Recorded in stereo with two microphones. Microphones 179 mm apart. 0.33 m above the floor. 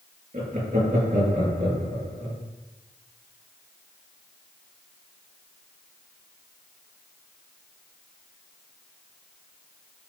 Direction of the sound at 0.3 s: 45° right (ahead or behind).